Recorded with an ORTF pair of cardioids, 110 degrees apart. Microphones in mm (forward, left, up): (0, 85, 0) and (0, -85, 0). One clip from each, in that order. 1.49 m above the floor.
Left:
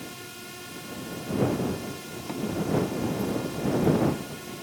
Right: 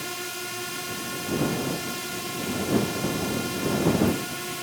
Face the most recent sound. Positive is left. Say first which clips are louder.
# right 8 dB
turn(degrees=-55)